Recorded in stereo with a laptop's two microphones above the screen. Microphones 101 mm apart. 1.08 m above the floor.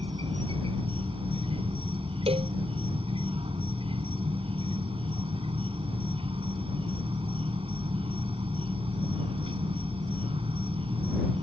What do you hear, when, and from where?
0.0 s an insect: 65° right (ahead or behind)
2.3 s a cowbell: 75° right (ahead or behind)